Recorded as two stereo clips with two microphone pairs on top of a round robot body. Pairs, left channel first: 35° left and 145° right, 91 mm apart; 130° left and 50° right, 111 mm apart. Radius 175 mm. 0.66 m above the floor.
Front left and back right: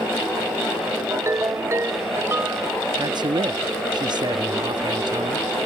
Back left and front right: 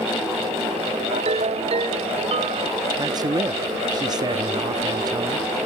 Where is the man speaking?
105° right.